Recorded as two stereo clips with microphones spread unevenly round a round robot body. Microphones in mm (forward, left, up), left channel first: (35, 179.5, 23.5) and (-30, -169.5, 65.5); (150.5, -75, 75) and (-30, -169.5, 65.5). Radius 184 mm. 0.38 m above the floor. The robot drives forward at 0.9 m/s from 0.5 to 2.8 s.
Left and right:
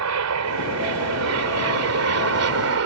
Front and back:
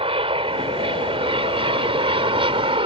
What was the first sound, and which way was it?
An aircraft, 110° right.